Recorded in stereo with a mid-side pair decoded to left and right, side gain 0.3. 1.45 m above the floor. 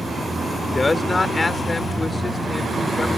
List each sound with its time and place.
0.5 s a man speaking: 35° left